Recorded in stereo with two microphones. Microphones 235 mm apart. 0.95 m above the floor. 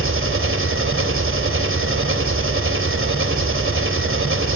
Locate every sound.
0.0 s an engine running: 60° right (ahead or behind), 3 m